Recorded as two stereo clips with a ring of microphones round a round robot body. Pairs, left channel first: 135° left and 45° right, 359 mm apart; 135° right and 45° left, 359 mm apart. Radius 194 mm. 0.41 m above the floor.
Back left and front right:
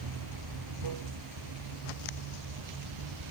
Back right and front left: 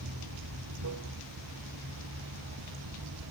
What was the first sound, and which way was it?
Running water, 5° right.